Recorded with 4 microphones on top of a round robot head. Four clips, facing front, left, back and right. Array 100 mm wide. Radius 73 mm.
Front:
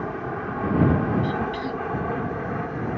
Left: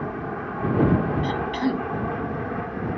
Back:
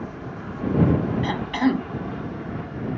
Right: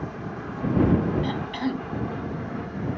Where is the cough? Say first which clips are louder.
Left 3 dB, back 4 dB; 175° left.